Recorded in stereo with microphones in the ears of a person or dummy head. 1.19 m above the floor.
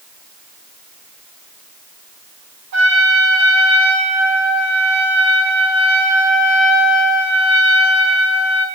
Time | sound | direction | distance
2.7 | a trumpet | 60° right (ahead or behind) | 7 m